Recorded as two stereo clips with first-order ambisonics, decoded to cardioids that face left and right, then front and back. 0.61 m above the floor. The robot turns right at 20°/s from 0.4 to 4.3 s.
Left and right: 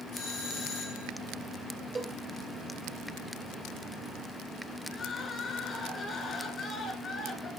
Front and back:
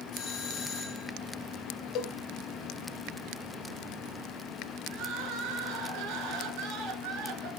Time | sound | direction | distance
0.1 | a doorbell | 35° left | 5 m
1.9 | a cowbell | 10° right | 0.6 m
4.9 | crying | 155° left | 1.9 m